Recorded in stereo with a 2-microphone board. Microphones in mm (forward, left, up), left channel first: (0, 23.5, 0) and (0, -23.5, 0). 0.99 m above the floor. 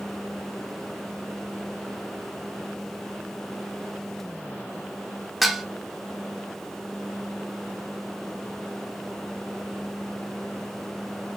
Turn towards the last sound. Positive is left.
turn(degrees=-5)  # may be behind; listen again after turning